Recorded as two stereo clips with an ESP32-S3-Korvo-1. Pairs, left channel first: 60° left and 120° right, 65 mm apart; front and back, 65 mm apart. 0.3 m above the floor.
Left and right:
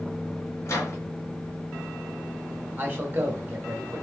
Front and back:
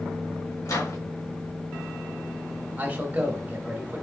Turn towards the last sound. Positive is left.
turn(degrees=-135)